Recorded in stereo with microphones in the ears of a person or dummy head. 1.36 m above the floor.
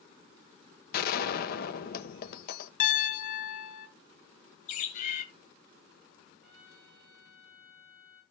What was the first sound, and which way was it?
A gunshot, 55° left (ahead or behind).